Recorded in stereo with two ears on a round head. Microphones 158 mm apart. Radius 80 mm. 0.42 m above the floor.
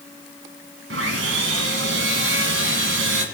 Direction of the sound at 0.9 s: 80° right.